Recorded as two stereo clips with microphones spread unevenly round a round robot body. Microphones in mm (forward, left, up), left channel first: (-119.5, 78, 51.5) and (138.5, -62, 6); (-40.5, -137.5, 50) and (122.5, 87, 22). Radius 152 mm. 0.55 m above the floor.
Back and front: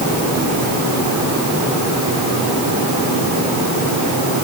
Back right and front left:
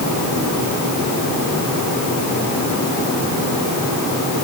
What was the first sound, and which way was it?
Only background noise.